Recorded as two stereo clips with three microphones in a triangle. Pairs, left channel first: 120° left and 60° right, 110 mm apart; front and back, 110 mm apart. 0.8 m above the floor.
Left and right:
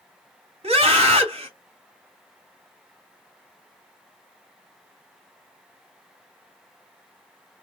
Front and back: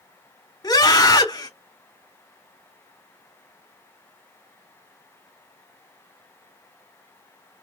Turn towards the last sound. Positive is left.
turn(degrees=-50)